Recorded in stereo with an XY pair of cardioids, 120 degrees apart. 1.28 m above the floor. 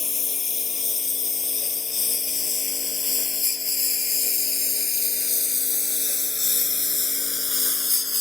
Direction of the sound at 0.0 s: 30° left.